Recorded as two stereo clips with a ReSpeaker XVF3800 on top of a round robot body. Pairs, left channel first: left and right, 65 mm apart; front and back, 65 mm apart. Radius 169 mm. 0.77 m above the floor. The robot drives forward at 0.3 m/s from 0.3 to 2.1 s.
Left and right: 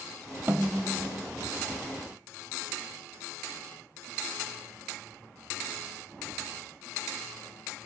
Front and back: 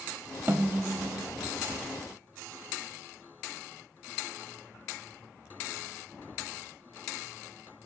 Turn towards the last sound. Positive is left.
turn(degrees=-155)